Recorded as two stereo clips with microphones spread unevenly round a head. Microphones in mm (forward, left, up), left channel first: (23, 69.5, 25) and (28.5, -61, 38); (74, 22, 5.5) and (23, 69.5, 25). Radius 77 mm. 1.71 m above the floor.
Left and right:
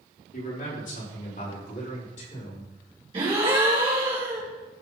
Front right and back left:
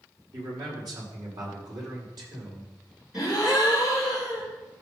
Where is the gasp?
140° right, 3.5 m.